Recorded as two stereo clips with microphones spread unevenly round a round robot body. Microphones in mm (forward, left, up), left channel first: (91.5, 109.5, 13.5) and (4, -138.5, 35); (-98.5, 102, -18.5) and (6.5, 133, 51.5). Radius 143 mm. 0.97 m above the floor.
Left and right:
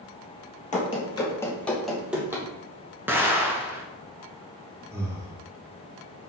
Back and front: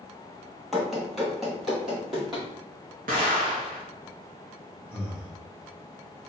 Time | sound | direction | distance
0.7 | running footsteps | 20° left | 1.1 m
3.1 | an explosion | 25° right | 0.8 m
4.9 | breathing | 175° left | 0.9 m